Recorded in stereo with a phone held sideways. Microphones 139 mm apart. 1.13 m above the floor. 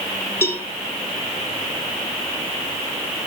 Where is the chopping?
No chopping in this recording.